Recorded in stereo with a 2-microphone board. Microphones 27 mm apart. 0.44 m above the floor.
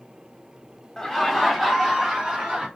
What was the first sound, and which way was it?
Laughter, 15° left (ahead or behind).